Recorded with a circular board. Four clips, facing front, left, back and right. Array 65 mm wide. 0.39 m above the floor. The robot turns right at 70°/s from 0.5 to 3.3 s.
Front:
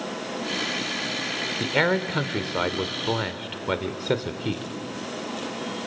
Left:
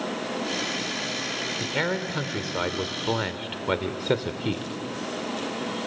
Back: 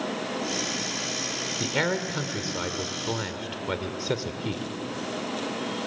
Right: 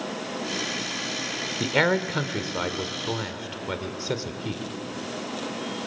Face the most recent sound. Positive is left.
turn(degrees=55)